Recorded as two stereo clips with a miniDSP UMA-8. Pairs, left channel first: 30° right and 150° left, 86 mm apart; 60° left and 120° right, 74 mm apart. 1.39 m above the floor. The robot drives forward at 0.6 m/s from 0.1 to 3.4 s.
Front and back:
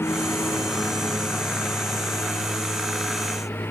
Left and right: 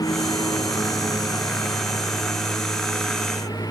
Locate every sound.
0.0 s a lawn mower: 30° left; by 3.7 s 35° left